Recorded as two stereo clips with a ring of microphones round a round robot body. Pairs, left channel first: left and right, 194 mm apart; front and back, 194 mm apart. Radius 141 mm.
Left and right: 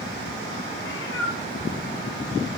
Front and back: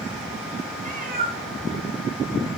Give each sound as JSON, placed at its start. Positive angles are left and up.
{"t": 0.8, "sound": "a cat meowing", "azimuth_deg": 135, "distance_m": 2.0}